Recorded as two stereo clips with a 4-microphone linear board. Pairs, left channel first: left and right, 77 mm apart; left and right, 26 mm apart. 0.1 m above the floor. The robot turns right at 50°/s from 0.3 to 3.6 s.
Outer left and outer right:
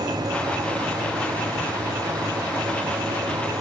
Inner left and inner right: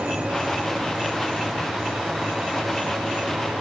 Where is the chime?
I don't hear a chime.